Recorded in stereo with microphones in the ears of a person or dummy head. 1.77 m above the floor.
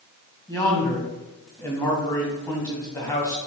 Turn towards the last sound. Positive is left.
turn(degrees=15)  # may be behind; listen again after turning